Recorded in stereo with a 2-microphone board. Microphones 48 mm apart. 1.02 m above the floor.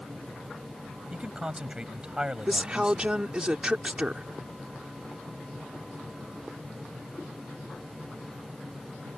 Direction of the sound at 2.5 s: 20° right (ahead or behind).